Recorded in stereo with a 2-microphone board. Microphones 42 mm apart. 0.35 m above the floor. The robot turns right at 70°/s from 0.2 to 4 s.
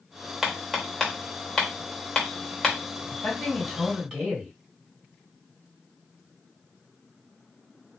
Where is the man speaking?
125° left, 1.9 m; by 4.5 s 170° right, 1.9 m.